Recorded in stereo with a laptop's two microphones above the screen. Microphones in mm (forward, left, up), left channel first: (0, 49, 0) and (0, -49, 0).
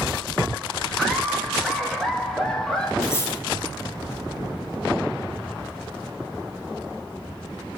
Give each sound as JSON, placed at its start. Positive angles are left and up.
{"t": 1.0, "sound": "laughter", "side_deg": 5, "distance_m": 2.0}
{"t": 3.0, "sound": "cutlery clinking", "side_deg": 30, "distance_m": 3.5}